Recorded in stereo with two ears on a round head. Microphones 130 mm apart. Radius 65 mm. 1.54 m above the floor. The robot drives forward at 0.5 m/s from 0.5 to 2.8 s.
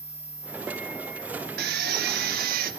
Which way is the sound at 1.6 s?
75° right (ahead or behind).